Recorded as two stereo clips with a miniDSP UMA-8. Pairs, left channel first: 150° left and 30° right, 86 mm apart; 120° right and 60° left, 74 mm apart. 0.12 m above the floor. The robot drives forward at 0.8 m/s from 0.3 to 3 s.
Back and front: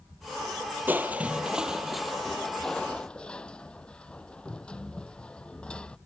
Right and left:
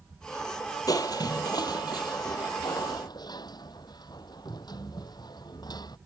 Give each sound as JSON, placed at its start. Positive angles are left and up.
{"t": 0.9, "sound": "crushing", "azimuth_deg": -95}